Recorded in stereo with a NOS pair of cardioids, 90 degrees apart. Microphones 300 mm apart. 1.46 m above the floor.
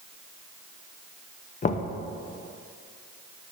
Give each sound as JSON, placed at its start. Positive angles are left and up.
{"t": 1.6, "sound": "knocking", "azimuth_deg": 25, "distance_m": 0.7}